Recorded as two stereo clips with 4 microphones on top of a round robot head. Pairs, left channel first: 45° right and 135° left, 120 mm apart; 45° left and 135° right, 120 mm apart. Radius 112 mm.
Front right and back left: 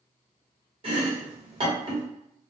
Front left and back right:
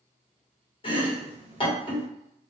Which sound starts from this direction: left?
Chopping, at 0.8 s.